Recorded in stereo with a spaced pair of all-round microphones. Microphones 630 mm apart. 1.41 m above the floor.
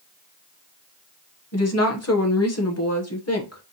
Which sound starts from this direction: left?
A woman speaking, at 1.5 s.